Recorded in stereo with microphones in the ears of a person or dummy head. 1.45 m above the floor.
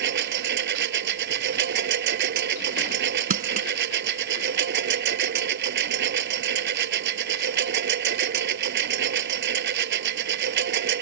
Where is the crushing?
45° right (ahead or behind).